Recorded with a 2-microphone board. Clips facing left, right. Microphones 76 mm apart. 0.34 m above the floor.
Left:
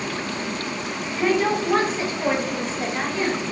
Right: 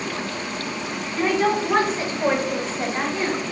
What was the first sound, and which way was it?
A woman speaking, 30° right (ahead or behind).